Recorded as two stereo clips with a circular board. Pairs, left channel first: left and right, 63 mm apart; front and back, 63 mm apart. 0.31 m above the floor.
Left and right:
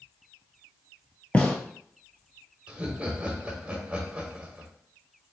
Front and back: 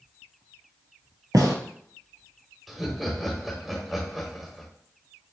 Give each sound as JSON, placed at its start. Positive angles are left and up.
{"t": 1.3, "sound": "a gunshot", "azimuth_deg": 160, "distance_m": 1.0}
{"t": 2.7, "sound": "laughter", "azimuth_deg": -95, "distance_m": 0.9}